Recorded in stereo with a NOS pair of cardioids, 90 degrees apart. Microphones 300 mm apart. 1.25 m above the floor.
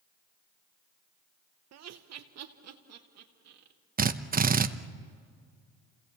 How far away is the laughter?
About 0.9 m.